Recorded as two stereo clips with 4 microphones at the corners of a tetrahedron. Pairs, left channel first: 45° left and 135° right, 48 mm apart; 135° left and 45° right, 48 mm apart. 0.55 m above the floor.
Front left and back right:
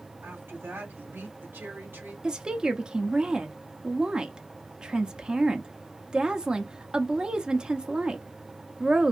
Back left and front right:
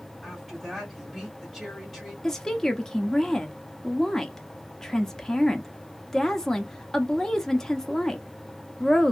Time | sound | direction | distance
0.2 | a woman speaking | 140° right | 2 m
2.2 | a woman speaking | 170° right | 0.6 m